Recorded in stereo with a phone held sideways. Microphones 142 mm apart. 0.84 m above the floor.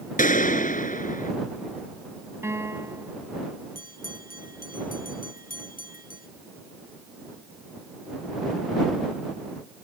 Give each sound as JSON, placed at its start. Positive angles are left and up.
{"t": 0.2, "sound": "a gunshot", "side_deg": 70}
{"t": 2.4, "sound": "a piano", "side_deg": -20}
{"t": 3.8, "sound": "a bell", "side_deg": 85}